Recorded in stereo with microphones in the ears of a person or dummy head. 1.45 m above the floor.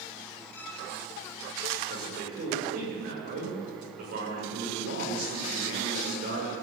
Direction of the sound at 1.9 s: 50° right (ahead or behind).